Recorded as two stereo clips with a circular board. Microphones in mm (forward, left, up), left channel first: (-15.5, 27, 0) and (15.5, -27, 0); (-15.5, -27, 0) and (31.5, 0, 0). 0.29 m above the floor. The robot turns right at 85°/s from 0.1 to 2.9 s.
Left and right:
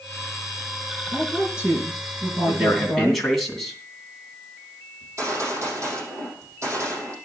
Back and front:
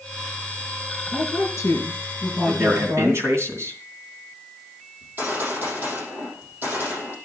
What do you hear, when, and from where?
1.1 s a woman speaking: 175° right, 8.5 m; by 3.2 s 25° right, 8.5 m
2.5 s a man speaking: 5° right, 2.5 m; by 3.8 s 35° left, 2.5 m
5.0 s a gunshot: 20° right, 6.5 m